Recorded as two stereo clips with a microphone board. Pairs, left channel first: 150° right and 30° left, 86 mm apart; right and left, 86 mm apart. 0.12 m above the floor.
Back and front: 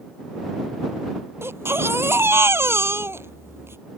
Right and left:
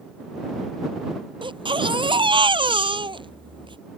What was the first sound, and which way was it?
A baby crying, 90° left.